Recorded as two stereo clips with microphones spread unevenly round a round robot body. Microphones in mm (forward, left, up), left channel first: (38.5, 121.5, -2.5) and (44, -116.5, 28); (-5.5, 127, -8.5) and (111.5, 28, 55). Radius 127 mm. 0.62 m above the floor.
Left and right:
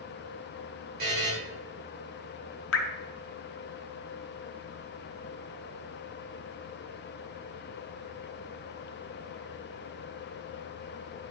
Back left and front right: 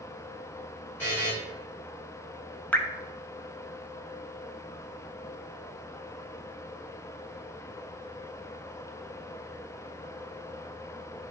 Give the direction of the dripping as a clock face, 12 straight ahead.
10 o'clock.